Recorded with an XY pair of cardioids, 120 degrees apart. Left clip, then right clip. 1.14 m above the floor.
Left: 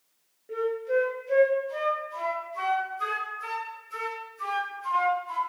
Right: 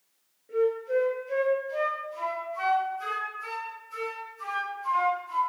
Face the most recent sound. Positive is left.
turn(degrees=30)